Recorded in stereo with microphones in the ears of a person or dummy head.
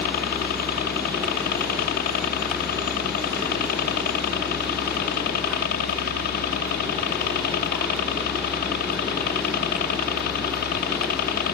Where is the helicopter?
50° left (ahead or behind).